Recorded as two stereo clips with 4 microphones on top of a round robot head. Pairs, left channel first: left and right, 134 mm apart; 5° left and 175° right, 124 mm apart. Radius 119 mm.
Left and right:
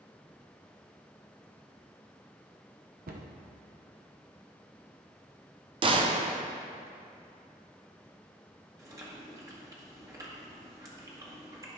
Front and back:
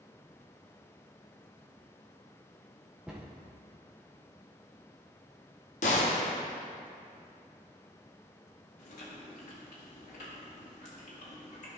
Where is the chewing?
25° right, 1.7 m.